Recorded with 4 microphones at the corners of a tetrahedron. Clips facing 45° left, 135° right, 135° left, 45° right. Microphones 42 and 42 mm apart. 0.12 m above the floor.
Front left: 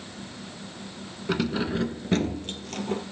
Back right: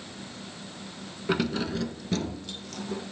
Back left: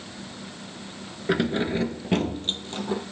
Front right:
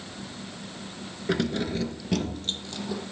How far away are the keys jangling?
About 0.9 m.